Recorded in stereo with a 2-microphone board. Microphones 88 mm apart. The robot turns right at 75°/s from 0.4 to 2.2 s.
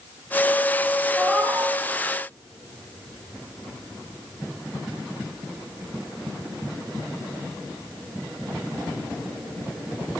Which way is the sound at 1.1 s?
165° left.